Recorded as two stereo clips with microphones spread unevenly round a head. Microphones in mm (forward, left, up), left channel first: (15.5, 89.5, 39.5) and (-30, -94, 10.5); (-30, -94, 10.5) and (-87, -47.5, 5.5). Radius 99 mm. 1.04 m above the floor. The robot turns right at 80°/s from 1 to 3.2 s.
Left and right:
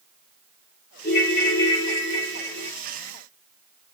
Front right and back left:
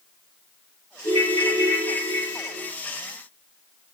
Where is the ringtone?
10° left, 1.4 m; by 2.7 s 145° left, 1.4 m.